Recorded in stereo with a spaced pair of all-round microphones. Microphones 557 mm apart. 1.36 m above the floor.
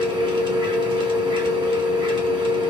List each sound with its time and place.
0.0 s a machine running: 10° right (ahead or behind), 1.6 m